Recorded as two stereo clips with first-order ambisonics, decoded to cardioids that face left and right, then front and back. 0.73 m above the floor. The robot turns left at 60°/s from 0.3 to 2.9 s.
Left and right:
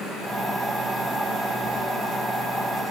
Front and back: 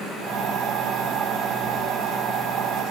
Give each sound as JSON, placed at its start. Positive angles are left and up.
{"t": 1.6, "sound": "keys jangling", "azimuth_deg": 30, "distance_m": 3.0}